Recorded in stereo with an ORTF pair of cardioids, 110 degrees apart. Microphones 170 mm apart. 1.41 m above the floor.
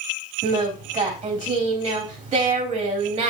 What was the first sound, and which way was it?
Singing, 40° right.